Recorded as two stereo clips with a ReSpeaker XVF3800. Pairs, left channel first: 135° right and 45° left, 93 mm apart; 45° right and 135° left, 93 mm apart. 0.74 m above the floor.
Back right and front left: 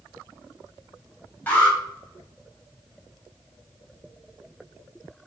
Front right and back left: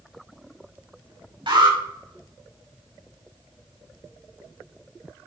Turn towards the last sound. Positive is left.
turn(degrees=155)